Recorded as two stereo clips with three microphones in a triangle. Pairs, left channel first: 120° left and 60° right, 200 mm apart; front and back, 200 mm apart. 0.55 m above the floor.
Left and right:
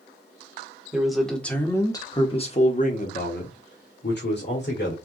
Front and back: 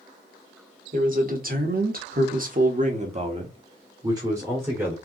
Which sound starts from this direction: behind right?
A man speaking, at 0.9 s.